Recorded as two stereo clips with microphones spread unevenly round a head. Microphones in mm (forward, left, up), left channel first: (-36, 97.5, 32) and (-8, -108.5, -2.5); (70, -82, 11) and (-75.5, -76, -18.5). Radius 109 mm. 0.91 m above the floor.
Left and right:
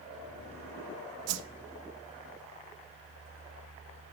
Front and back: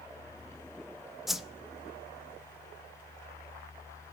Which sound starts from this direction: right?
A whoosh, at 1.3 s.